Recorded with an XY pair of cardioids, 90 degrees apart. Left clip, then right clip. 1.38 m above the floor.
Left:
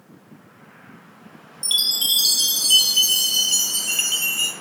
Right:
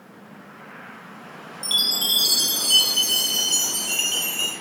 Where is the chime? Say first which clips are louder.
Left 1 dB; 35° left, 0.5 m.